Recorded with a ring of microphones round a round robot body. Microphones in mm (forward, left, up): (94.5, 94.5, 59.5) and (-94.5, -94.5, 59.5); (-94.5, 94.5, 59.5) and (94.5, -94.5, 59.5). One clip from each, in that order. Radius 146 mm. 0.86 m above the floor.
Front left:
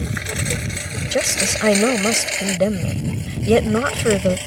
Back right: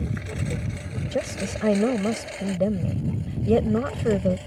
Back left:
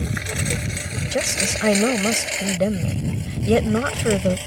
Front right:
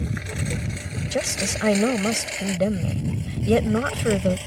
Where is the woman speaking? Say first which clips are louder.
Front left 9 dB, back left 3 dB; 50° left.